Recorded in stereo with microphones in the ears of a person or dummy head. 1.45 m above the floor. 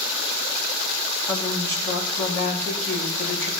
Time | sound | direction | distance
1.3 | a woman speaking | 15° left (ahead or behind) | 3 m